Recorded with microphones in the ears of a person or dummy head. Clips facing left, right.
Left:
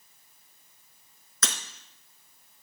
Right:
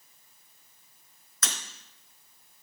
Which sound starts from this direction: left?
Breaking glass, at 1.4 s.